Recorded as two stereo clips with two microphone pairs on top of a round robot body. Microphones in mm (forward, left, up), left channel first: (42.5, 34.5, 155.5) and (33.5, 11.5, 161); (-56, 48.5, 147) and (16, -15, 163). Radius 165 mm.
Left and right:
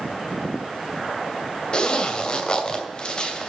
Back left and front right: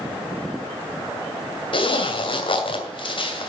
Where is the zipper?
120° left, 2.5 m.